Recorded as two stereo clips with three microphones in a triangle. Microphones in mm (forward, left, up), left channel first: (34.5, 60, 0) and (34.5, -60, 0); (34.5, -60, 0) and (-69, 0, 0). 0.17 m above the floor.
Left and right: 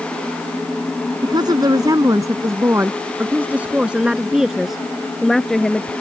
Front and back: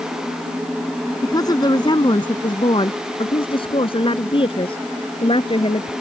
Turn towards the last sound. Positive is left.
turn(degrees=5)